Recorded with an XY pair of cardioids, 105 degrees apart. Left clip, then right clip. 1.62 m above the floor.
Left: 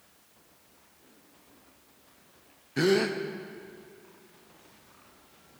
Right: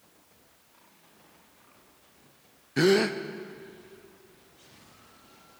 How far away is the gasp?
About 0.7 m.